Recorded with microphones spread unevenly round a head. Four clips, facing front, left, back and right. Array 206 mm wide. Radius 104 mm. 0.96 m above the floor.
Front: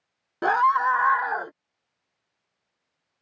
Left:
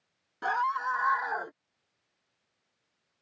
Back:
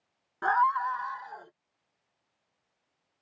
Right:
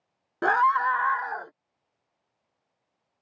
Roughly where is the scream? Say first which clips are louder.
Right 8 dB, front 5 dB; ahead right.